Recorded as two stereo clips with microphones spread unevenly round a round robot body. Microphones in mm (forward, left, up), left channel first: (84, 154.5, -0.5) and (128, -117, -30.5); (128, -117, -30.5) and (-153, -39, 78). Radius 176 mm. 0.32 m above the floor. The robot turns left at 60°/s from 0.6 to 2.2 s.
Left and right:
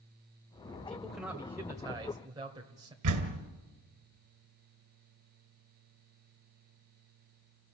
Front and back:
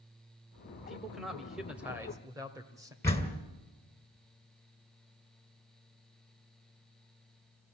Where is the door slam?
90° right, 2.5 m.